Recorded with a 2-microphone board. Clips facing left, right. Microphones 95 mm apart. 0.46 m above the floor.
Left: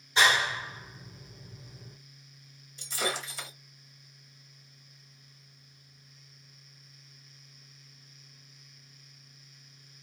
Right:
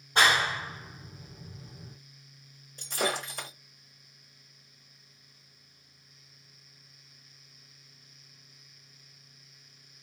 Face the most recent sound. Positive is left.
turn(degrees=-55)  # may be behind; listen again after turning